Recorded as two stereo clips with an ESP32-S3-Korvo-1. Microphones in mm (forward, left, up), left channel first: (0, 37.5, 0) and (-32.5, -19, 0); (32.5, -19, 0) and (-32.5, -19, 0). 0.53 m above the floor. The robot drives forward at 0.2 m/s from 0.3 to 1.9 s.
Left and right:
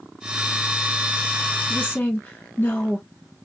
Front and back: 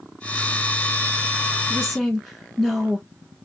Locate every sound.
1.7 s a woman speaking: 90° left, 1.1 m; by 3.0 s 95° left, 1.1 m